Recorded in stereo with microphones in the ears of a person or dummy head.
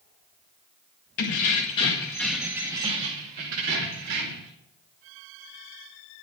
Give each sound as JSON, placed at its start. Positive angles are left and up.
{"t": 1.2, "sound": "keys jangling", "side_deg": 45, "distance_m": 1.3}